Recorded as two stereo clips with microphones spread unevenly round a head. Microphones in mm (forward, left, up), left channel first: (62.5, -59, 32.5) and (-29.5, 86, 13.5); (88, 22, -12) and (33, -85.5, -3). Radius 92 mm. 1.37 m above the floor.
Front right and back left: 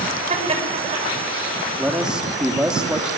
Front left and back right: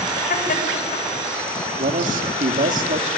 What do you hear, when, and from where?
0.3 s laughter: 70° left, 6.5 m
1.8 s a man speaking: 150° right, 2 m